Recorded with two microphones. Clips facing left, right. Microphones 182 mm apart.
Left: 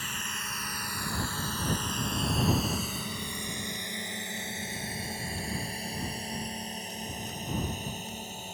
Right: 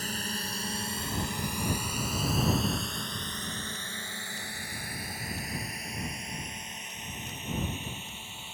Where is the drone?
40° right (ahead or behind); by 8.6 s 40° left (ahead or behind).